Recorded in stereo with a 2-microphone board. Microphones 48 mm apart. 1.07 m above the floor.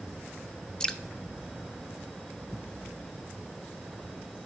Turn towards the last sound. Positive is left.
turn(degrees=10)  # may be behind; listen again after turning